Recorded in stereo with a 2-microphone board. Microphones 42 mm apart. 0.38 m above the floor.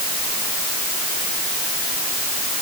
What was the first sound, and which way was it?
Only background noise.